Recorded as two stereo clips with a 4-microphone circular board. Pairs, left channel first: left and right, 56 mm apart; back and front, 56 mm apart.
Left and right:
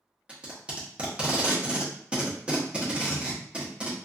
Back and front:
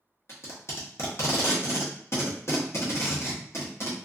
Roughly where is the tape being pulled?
Behind.